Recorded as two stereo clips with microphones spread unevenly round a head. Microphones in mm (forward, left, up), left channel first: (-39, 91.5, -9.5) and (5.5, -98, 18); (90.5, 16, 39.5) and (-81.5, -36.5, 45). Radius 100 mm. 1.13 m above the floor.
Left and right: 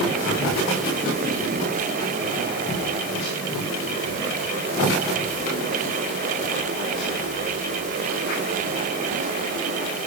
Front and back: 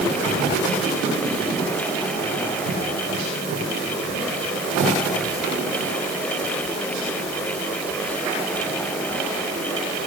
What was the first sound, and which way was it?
Only background noise.